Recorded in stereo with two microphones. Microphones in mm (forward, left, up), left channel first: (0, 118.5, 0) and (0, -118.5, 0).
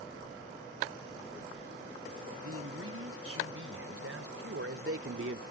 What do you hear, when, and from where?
2.4 s a man speaking: 75° right (ahead or behind); by 5.4 s 60° right (ahead or behind)